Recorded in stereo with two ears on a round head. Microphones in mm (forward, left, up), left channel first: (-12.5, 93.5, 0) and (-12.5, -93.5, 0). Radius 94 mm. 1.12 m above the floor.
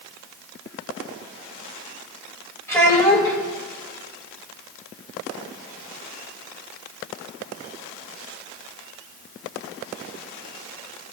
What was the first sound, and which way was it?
A child speaking, 10° left (ahead or behind).